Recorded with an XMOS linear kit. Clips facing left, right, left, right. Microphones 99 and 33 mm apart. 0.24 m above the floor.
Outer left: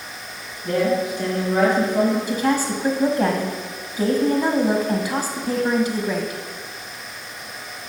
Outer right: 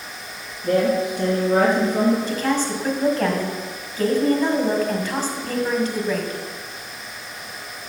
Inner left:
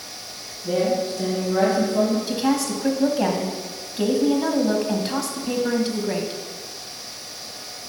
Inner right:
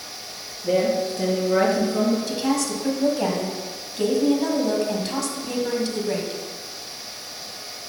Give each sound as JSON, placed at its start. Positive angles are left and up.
{"t": 0.6, "sound": "a woman speaking", "side_deg": -45, "distance_m": 2.5}
{"t": 2.3, "sound": "a woman speaking", "side_deg": 10, "distance_m": 1.3}